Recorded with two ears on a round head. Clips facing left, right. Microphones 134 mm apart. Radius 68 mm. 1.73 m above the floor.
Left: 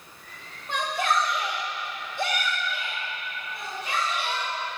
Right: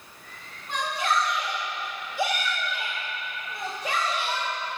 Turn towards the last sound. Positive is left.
turn(degrees=-65)  # may be behind; listen again after turning